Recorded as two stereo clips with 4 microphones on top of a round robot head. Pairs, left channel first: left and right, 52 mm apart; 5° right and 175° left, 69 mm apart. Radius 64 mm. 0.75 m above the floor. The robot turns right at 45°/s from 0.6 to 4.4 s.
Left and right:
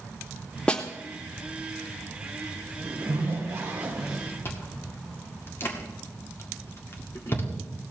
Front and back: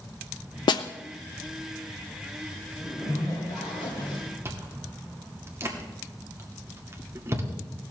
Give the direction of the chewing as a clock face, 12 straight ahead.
8 o'clock.